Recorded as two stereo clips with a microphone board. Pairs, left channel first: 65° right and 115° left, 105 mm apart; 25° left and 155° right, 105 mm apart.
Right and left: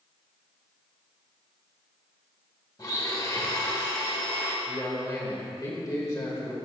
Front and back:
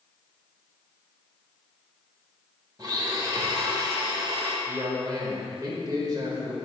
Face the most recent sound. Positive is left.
turn(degrees=-120)